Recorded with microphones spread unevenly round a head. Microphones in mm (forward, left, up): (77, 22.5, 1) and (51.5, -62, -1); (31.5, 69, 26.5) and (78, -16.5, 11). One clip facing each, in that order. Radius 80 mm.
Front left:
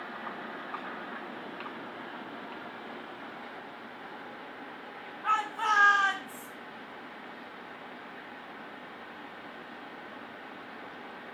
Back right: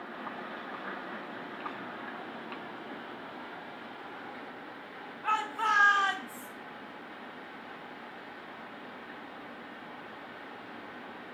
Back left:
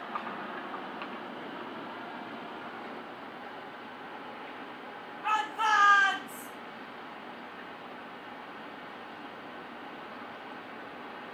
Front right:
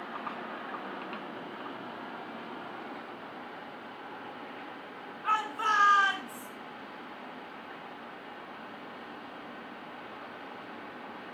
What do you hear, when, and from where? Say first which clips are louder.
5.2 s a shout: front left 1 dB, back left 1 dB; 165° left, 8 m; by 6.5 s 170° left, 8.5 m